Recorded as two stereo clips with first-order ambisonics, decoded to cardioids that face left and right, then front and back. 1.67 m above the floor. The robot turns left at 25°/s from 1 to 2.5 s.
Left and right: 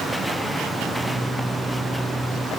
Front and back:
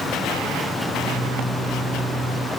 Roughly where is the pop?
No pop in this recording.